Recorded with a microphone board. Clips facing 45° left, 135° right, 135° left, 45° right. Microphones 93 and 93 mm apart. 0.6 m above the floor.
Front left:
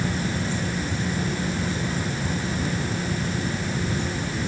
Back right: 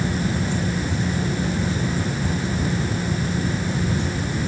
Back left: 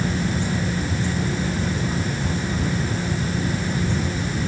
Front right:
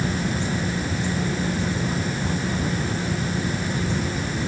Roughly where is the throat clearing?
I don't hear throat clearing.